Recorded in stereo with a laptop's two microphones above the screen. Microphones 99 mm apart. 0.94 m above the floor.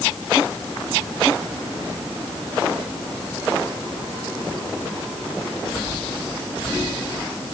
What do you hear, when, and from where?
Only background noise.